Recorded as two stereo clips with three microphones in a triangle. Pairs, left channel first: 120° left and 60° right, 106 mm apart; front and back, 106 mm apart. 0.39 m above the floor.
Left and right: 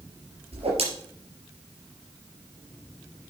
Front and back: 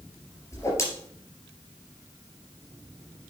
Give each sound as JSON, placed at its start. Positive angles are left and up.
{"t": 0.5, "sound": "a whoosh", "azimuth_deg": -60, "distance_m": 4.0}